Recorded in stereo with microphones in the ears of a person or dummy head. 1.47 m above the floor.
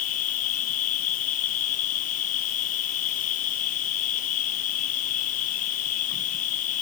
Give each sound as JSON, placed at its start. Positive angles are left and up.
{"t": 0.0, "sound": "an insect", "side_deg": 40}